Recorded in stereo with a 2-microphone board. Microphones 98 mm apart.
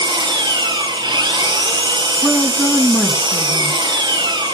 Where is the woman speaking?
10° left (ahead or behind), 1.7 m.